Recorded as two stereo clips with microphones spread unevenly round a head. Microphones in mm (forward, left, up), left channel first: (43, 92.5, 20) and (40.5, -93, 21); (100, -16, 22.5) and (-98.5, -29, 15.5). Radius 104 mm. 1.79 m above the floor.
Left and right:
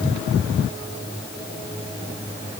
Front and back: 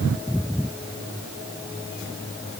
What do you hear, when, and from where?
Only background noise.